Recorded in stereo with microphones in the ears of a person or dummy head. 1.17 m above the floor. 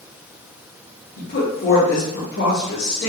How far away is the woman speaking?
About 1.6 m.